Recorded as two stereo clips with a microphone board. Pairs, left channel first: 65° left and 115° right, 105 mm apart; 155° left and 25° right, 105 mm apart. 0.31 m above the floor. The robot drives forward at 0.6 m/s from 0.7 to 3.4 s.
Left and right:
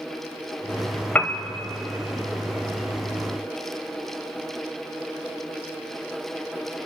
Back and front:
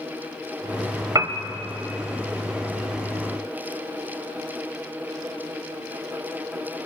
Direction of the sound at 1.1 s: Straight ahead.